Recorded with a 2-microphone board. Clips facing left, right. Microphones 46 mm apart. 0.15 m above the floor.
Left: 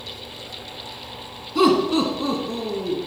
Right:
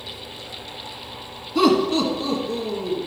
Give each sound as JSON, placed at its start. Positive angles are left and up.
{"t": 1.6, "sound": "laughter", "side_deg": 0, "distance_m": 1.1}